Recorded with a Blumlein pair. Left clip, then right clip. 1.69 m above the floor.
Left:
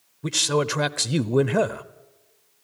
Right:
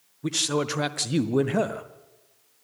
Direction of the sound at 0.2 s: 10° left.